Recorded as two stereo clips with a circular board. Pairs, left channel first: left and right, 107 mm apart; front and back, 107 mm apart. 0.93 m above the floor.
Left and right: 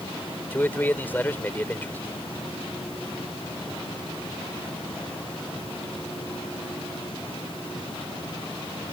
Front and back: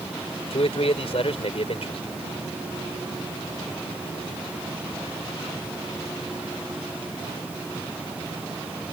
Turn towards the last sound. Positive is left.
turn(degrees=20)